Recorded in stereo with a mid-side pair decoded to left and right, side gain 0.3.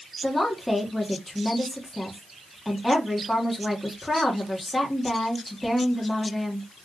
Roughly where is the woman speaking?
Ahead.